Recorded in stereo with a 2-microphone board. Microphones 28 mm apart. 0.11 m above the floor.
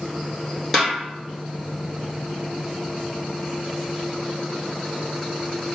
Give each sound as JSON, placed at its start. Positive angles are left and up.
{"t": 0.7, "sound": "a snare drum", "side_deg": 0, "distance_m": 1.5}